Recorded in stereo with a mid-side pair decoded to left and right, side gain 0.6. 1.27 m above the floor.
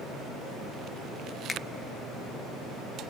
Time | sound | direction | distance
1.5 | a finger snap | 25° left | 0.6 m